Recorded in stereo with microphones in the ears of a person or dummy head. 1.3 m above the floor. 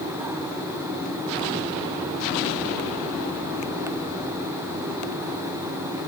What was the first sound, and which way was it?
Only background noise.